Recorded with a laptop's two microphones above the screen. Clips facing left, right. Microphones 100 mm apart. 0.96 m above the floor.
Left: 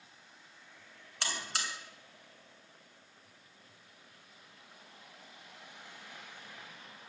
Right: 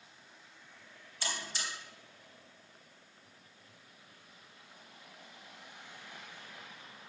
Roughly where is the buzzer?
Left.